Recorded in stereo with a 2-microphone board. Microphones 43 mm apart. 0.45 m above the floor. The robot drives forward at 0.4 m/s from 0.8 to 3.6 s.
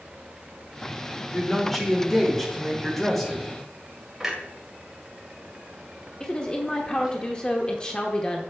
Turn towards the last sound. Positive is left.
turn(degrees=20)  # may be behind; listen again after turning